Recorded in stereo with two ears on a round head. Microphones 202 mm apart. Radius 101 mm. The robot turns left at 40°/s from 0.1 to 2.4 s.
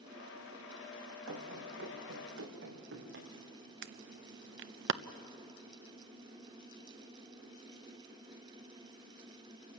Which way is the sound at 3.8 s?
55° right (ahead or behind).